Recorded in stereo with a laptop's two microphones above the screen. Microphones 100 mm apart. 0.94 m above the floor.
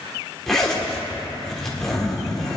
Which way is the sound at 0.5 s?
5° left (ahead or behind).